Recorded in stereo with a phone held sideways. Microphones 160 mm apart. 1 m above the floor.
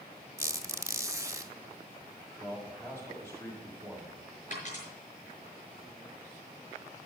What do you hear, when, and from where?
0.4 s a squeak: 20° right (ahead or behind), 0.9 m
2.4 s a man speaking: 15° left (ahead or behind), 6.5 m
4.5 s a dropped coin: 50° left (ahead or behind), 6 m